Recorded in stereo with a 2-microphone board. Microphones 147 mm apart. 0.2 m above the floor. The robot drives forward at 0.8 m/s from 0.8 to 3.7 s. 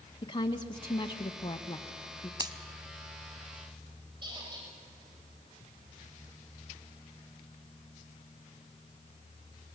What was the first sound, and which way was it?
A woman speaking, 35° left (ahead or behind).